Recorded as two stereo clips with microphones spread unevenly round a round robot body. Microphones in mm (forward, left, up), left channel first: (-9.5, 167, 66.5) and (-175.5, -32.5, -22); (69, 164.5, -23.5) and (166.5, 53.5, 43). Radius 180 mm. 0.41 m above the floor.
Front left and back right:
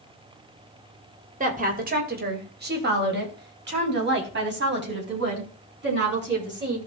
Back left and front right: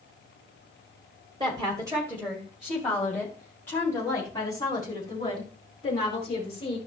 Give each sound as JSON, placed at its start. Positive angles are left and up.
{"t": 1.4, "sound": "a woman speaking", "azimuth_deg": -130, "distance_m": 1.7}